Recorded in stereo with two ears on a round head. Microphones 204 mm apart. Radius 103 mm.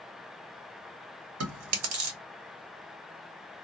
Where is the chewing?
70° right (ahead or behind), 1.1 m.